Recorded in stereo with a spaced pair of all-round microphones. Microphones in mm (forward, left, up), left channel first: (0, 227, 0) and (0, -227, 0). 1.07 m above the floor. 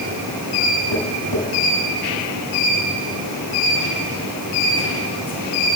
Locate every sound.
0.9 s tapping: 70° left (ahead or behind), 8.5 m